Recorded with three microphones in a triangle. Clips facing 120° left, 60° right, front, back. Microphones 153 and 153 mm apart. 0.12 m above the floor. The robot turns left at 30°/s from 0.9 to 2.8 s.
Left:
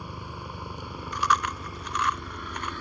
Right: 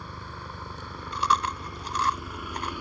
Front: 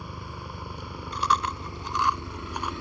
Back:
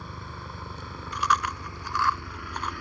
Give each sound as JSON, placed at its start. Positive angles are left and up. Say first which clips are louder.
{"t": 0.0, "sound": "a helicopter", "louder": "left 2 dB, front 1 dB", "azimuth_deg": 60}
{"t": 1.1, "sound": "chewing", "louder": "even, even", "azimuth_deg": -25}